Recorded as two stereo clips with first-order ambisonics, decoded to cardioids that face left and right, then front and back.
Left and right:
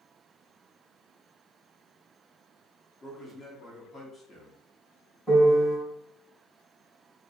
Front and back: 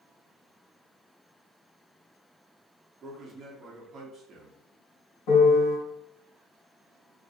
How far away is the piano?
About 1.7 m.